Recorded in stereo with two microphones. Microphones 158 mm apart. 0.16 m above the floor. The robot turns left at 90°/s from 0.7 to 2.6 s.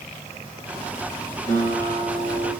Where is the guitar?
15° left, 2 m; by 2.5 s 80° right, 2 m.